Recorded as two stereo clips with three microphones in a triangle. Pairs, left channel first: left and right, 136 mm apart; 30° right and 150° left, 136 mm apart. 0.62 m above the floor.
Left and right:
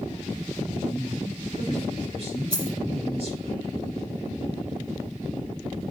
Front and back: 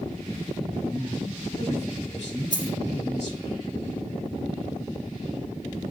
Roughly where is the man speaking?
Ahead right.